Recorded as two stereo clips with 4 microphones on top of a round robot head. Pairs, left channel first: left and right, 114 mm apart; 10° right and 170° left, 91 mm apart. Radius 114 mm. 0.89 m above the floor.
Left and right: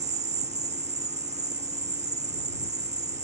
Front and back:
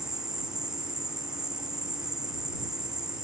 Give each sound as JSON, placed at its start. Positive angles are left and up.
{"t": 0.0, "sound": "an insect", "azimuth_deg": -105}